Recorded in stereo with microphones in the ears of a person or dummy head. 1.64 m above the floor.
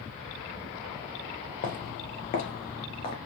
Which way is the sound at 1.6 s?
45° left (ahead or behind).